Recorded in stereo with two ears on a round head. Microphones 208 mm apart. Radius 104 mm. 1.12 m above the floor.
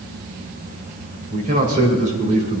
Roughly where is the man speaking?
Right.